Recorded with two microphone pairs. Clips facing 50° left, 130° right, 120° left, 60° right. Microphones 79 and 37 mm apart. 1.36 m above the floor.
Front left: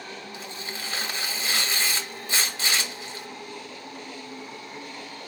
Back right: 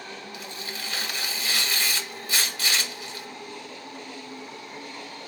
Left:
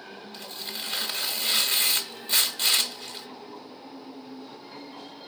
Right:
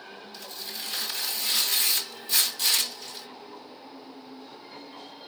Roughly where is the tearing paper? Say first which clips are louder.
Even, left 2 dB; left.